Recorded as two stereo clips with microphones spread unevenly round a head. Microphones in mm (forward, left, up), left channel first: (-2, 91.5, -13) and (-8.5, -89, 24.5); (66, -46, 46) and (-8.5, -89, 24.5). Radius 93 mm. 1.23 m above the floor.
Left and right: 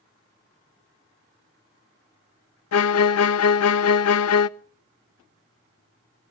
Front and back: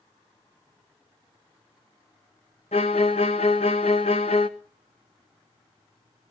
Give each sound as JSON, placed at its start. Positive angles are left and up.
{"t": 2.7, "sound": "a violin", "azimuth_deg": 80, "distance_m": 0.5}